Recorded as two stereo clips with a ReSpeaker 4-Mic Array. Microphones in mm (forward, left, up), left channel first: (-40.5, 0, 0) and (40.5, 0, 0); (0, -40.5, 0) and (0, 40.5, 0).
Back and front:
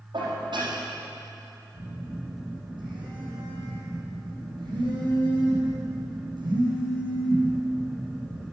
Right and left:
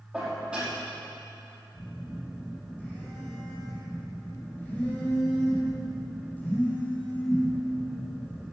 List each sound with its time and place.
0.1 s dishes clattering: 10° left, 5.5 m
1.7 s a phone buzzing: 20° right, 4.5 m